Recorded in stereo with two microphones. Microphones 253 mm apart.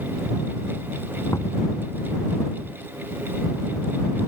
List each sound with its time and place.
1.3 s knocking: 10° left (ahead or behind)